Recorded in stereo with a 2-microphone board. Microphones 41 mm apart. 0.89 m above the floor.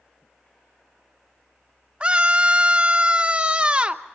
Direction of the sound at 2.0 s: 25° right (ahead or behind).